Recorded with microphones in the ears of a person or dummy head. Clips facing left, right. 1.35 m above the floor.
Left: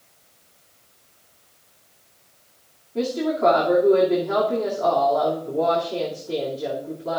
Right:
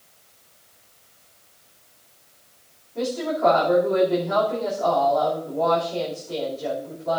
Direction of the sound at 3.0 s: 60° left (ahead or behind).